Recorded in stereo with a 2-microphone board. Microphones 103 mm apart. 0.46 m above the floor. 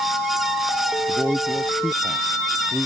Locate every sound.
1.1 s a man speaking: centre (ahead or behind); by 2.9 s 5° right (ahead or behind)